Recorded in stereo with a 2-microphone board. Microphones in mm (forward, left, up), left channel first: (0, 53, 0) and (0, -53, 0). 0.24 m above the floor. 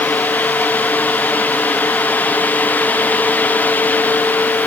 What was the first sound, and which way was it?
Only background noise.